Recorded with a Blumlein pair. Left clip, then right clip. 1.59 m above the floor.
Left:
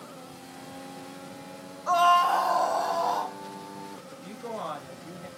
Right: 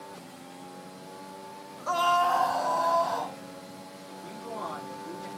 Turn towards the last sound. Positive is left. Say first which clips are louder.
# even
turn(degrees=30)